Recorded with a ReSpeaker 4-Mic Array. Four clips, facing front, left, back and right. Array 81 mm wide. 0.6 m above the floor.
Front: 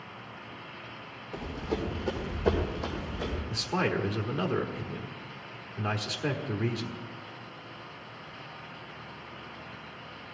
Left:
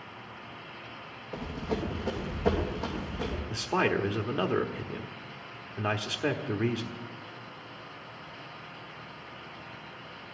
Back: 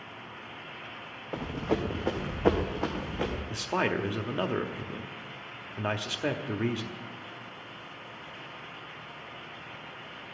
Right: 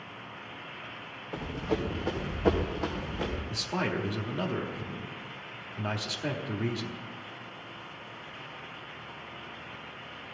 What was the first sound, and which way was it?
Running footsteps, 165° right.